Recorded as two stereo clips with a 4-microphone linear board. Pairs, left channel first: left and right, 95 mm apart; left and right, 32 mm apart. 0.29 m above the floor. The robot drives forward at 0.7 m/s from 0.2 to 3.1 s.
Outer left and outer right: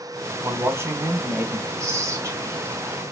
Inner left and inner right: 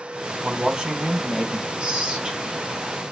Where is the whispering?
35° right (ahead or behind), 1.8 m; by 3.0 s 30° right (ahead or behind), 2 m.